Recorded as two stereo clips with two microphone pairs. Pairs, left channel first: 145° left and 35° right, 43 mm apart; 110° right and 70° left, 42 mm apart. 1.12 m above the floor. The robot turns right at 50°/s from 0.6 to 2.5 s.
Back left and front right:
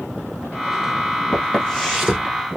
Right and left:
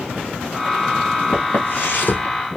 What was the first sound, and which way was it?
Footsteps, 150° right.